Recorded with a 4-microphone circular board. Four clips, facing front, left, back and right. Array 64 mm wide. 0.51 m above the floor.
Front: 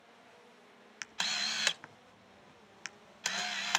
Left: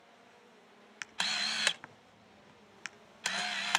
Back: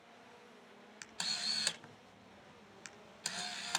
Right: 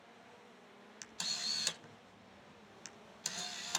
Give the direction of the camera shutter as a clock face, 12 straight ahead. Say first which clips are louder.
Left 11 dB, front 7 dB; 10 o'clock.